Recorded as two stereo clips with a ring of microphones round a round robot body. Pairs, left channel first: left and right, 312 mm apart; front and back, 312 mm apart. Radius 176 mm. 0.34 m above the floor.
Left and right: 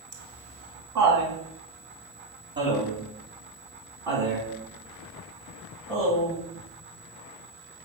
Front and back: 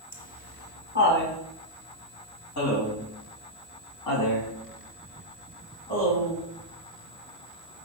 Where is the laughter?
65° right, 3 m; by 6.4 s 10° left, 4 m.